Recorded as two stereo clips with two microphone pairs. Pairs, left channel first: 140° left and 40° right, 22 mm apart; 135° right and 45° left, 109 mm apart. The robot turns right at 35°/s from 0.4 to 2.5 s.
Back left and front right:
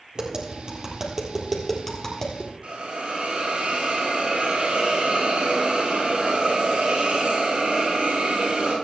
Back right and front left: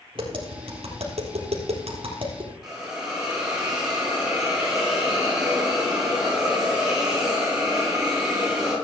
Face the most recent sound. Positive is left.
turn(degrees=-40)